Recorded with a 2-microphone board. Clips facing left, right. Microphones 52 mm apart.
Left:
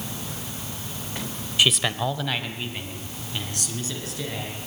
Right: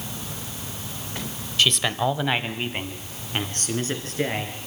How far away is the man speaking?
About 0.9 m.